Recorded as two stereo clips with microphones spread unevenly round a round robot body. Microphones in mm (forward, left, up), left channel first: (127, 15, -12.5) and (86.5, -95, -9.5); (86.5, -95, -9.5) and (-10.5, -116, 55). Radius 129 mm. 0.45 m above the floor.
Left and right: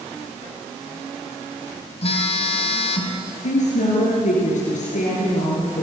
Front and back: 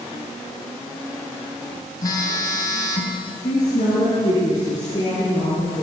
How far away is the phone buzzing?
About 3 m.